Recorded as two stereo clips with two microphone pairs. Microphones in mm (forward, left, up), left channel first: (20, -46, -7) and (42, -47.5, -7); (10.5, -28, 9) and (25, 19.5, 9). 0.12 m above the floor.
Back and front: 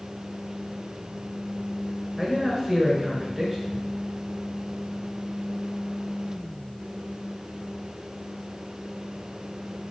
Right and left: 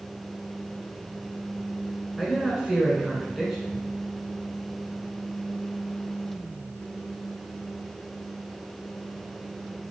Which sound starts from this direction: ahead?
A man speaking, at 2.2 s.